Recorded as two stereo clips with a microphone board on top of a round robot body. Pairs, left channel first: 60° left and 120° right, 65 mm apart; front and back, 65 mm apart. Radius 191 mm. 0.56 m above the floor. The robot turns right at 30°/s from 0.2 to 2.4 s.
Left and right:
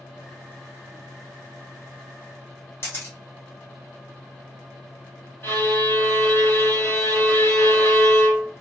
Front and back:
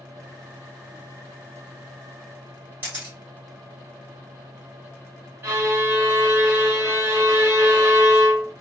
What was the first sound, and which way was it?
A camera shutter, 115° left.